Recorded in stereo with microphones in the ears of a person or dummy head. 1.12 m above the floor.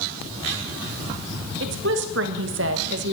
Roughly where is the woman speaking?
Right.